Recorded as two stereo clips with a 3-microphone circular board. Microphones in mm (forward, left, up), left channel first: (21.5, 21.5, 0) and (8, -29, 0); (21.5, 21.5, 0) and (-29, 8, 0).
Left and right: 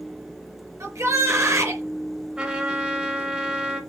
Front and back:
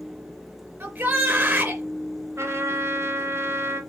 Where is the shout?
115° right, 3.5 m.